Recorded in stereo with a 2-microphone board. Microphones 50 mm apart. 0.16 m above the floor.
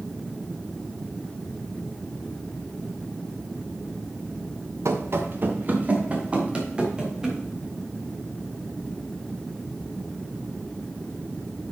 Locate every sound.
4.8 s running footsteps: 65° right (ahead or behind), 1.3 m; by 7.4 s 15° right (ahead or behind), 4 m